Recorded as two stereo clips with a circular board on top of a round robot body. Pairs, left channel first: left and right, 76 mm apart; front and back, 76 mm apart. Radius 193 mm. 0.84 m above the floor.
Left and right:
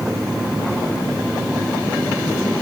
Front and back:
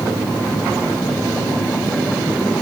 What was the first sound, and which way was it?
Only background noise.